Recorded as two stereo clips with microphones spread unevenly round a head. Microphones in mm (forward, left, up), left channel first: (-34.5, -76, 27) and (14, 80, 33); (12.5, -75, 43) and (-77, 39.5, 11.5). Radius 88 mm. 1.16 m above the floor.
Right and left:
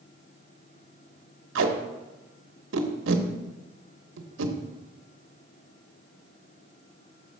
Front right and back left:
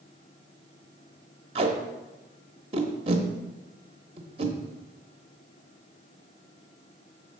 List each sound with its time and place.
1.6 s tape being pulled: 70° left, 0.9 m